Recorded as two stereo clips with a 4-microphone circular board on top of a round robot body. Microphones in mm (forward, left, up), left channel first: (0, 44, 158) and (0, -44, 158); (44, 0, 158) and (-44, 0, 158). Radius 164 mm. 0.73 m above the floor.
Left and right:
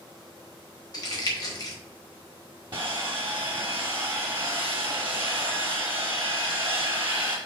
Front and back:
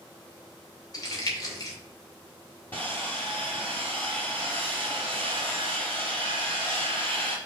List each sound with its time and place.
0.9 s crumpling: 45° left, 2.5 m
2.7 s sawing: 65° right, 0.5 m